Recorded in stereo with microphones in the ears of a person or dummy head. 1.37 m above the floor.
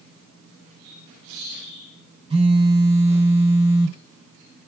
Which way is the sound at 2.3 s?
30° right (ahead or behind).